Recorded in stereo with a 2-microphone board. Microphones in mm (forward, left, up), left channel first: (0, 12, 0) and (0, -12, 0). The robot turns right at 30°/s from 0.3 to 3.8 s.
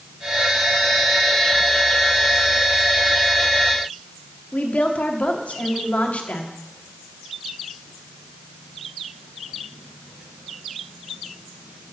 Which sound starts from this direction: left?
A woman speaking, at 4.5 s.